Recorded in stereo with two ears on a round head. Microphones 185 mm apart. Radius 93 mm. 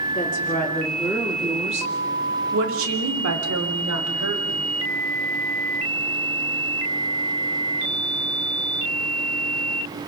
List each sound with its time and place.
0.1 s a woman speaking: 15° left (ahead or behind), 3 m; by 4.7 s 80° right, 4.5 m